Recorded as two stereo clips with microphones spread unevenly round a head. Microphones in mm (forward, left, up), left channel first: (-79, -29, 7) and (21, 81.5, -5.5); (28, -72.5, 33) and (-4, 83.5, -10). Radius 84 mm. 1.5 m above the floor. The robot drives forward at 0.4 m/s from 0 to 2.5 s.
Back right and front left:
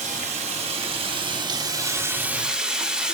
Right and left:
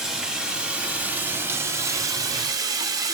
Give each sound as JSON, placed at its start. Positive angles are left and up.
{"t": 0.0, "sound": "running water", "azimuth_deg": 5, "distance_m": 1.2}